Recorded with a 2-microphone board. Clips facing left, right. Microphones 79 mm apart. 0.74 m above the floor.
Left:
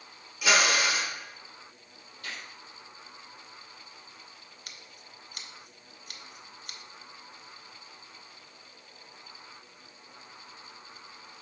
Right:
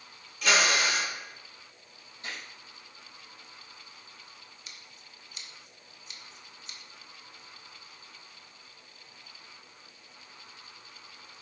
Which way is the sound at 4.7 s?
55° left (ahead or behind).